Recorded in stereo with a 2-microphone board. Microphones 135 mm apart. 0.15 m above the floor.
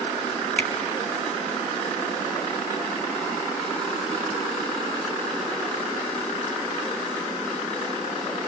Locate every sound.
0.6 s a finger snap: 10° left (ahead or behind), 1.3 m